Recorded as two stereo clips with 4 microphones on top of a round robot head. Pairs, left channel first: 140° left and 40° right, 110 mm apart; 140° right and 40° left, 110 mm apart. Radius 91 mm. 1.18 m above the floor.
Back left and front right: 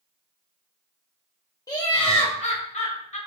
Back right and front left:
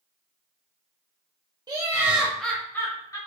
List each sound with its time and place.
1.7 s laughter: 85° left, 0.5 m; by 3.2 s 155° left, 0.9 m